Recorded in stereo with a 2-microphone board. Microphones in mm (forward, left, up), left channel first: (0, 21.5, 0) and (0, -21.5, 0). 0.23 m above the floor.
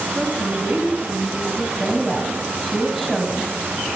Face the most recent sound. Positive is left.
turn(degrees=-10)  # may be behind; listen again after turning